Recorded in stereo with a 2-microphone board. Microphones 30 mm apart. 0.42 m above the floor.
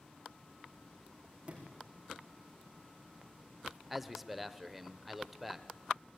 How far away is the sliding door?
About 4.5 m.